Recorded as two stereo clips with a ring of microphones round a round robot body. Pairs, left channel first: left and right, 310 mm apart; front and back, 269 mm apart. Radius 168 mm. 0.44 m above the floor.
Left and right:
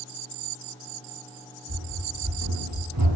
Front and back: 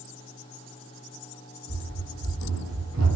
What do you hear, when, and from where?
1.7 s running footsteps: 145° right, 2 m; by 3.2 s 125° right, 1.1 m